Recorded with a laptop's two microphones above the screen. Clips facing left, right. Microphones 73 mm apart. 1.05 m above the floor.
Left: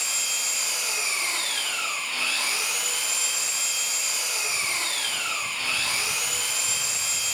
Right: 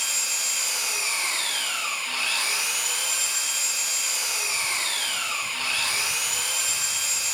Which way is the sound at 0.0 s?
85° right.